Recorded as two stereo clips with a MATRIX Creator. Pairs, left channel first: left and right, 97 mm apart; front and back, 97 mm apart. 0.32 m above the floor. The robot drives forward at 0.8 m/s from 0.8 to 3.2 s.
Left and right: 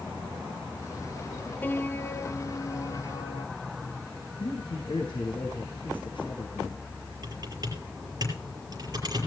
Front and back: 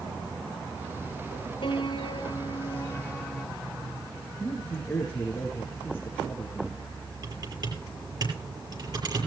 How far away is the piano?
About 1.4 m.